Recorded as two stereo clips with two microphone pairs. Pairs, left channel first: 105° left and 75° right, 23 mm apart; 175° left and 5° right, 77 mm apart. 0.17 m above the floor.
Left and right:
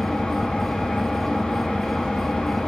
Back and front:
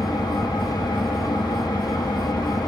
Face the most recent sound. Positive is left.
turn(degrees=145)